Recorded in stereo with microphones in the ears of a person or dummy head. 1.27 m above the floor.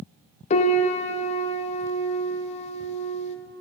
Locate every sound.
0.5 s a piano: 40° left (ahead or behind), 0.5 m